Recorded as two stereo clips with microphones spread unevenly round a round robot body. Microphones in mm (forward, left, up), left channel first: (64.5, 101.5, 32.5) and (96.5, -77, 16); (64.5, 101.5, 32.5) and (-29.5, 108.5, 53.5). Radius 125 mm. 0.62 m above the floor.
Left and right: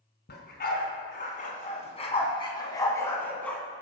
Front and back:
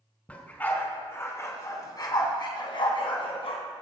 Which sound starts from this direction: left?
A dog barking, at 0.3 s.